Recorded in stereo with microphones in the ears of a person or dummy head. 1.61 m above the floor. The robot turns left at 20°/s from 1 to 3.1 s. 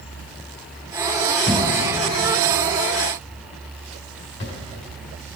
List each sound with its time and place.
1.5 s a thud: 25° left (ahead or behind), 2 m; by 4.6 s 50° left (ahead or behind), 2 m